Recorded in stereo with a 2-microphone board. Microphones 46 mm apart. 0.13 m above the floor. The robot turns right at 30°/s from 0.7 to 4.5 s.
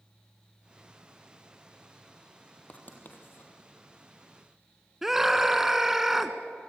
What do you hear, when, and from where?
2.7 s writing: 35° left (ahead or behind), 3.5 m; by 3.5 s 55° left (ahead or behind), 3.5 m
5.0 s a scream: 10° right (ahead or behind), 1.2 m